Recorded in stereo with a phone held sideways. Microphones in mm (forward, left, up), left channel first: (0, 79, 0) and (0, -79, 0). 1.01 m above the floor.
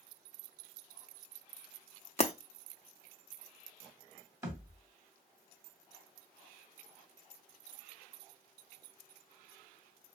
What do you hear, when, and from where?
2.2 s breaking glass: 45° left (ahead or behind), 0.6 m
4.4 s a thud: 20° right (ahead or behind), 1.4 m